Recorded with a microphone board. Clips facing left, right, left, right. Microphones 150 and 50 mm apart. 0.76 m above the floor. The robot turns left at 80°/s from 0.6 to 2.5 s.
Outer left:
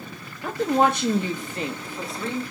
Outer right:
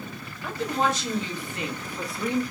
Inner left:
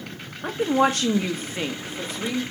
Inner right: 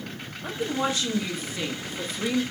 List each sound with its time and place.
0.4 s a woman speaking: 120° left, 0.8 m; by 2.4 s 25° right, 0.8 m